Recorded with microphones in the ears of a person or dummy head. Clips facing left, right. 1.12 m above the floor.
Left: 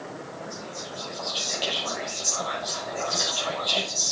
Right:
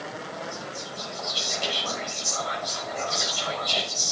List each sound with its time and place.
0.5 s whispering: 25° left (ahead or behind), 6.5 m